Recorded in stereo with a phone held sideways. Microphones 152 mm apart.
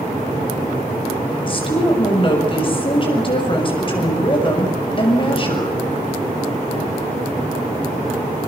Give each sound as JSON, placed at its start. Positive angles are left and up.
{"t": 1.5, "sound": "a woman speaking", "side_deg": 35, "distance_m": 7.0}